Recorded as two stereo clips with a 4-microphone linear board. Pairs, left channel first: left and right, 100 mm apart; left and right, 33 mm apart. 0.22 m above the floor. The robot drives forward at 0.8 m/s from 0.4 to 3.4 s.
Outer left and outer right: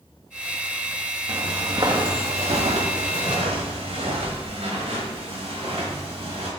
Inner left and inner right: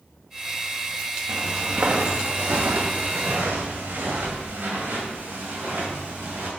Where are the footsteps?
25° right (ahead or behind), 1.7 m; by 6.5 s 80° right, 4 m.